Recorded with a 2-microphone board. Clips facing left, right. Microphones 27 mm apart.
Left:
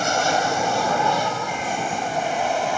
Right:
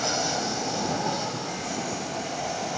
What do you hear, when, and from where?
0.0 s an aircraft: 40° left (ahead or behind)